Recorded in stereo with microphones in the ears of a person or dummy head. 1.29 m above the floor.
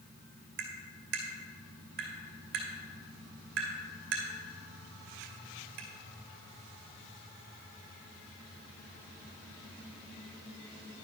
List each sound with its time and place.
0.6 s tapping: 60° right (ahead or behind), 2.5 m